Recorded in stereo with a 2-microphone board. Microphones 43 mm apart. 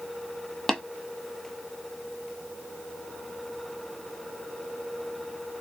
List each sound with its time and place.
0.7 s tapping: 10° left (ahead or behind), 0.7 m